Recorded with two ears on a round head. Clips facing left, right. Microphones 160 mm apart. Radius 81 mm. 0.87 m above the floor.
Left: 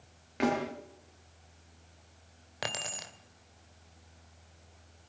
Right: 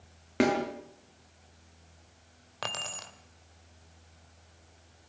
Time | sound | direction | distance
0.4 | a snare drum | 60° right (ahead or behind) | 6.5 m
2.6 | keys jangling | 15° left (ahead or behind) | 1.9 m